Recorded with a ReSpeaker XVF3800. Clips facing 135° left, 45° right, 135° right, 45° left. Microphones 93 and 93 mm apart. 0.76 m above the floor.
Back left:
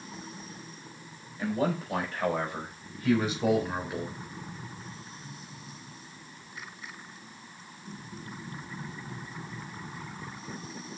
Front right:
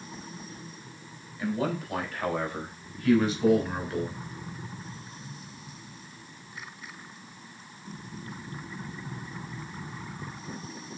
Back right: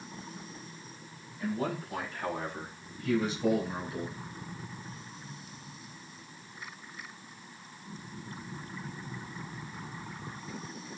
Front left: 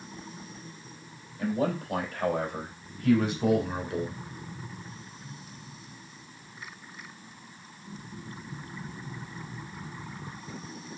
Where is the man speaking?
80° left, 4.5 m; by 4.1 s 55° left, 3.5 m.